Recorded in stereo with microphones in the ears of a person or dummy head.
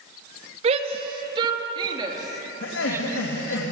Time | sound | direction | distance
0.6 | a shout | 40° right (ahead or behind) | 3 m
2.6 | laughter | 90° left | 3.5 m